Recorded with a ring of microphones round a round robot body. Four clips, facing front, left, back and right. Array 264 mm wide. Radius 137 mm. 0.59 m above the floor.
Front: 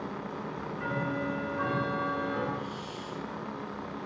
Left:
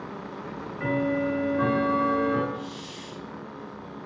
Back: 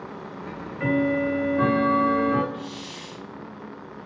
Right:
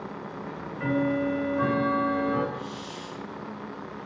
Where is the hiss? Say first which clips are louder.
Right 1 dB, back 1 dB; 175° left, 2.5 m.